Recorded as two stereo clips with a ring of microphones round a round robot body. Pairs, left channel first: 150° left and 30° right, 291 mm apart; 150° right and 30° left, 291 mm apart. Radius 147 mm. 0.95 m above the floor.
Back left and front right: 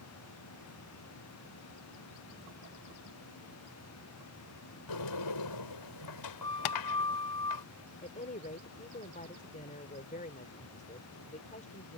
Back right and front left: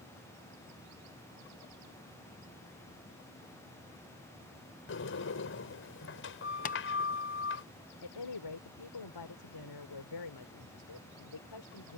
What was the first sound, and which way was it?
A sliding door, 160° left.